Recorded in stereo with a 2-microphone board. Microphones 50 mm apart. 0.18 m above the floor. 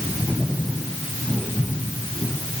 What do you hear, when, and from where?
Only background noise.